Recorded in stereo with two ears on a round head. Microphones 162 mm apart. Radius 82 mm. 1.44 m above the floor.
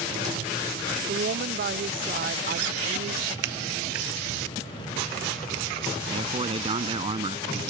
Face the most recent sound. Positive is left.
turn(degrees=-30)  # may be behind; listen again after turning